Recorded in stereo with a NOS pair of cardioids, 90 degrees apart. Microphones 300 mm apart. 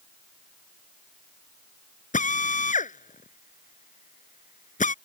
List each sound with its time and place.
2.1 s a drill: 25° left